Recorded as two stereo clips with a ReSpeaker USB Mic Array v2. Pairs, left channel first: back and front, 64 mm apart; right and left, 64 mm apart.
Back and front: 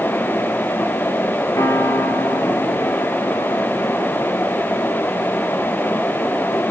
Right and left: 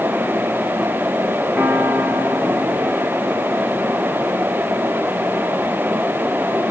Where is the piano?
145° left, 6.5 m.